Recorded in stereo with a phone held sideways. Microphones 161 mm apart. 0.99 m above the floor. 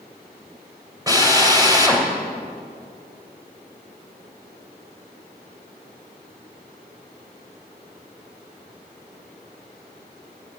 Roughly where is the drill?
Right.